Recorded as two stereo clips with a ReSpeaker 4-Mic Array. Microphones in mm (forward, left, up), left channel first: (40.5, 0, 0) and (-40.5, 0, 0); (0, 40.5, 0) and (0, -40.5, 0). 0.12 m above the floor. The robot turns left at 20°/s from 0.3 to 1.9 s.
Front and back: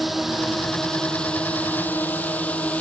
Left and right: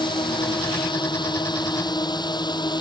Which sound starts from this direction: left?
A drone, at 0.0 s.